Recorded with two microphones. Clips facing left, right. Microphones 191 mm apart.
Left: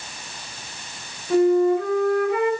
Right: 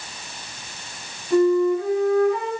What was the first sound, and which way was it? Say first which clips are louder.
A flute: even; 75° left (ahead or behind).